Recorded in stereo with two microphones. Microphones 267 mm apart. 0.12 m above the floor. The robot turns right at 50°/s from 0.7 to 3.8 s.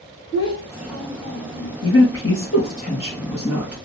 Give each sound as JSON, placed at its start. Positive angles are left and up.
{"t": 0.3, "sound": "a child speaking", "azimuth_deg": 65, "distance_m": 2.0}
{"t": 1.8, "sound": "a woman speaking", "azimuth_deg": 95, "distance_m": 2.5}